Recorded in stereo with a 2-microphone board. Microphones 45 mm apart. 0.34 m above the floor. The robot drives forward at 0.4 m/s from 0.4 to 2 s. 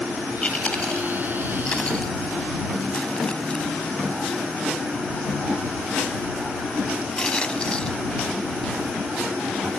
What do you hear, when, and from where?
0.4 s chewing: 30° left (ahead or behind); by 9.8 s 20° left (ahead or behind)